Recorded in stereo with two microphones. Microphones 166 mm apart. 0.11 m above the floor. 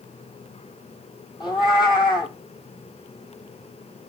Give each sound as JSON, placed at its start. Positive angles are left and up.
{"t": 1.4, "sound": "a cat meowing", "side_deg": 25, "distance_m": 0.6}